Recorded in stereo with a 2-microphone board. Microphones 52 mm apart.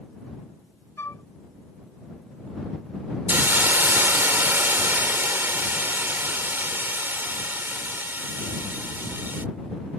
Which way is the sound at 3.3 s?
45° right (ahead or behind).